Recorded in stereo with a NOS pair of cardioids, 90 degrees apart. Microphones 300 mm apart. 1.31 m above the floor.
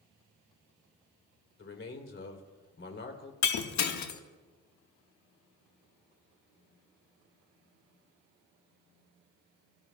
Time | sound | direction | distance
1.6 | a man speaking | 40° left | 3.5 m
3.4 | breaking glass | 65° left | 1.6 m